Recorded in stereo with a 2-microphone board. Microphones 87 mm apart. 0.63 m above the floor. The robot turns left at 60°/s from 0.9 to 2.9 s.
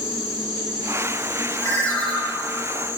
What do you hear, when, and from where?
0.0 s an insect: 90° right, 0.8 m; by 3.0 s 150° left, 0.8 m
1.6 s a ringtone: 40° left, 1.1 m; by 2.1 s 10° left, 1.1 m